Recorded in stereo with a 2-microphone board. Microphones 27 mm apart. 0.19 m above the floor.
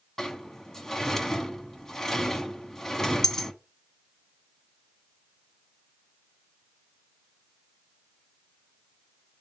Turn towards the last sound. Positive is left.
turn(degrees=20)  # may be behind; listen again after turning